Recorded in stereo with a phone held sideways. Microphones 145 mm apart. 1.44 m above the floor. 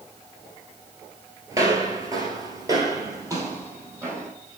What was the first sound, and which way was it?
Footsteps, 25° right (ahead or behind).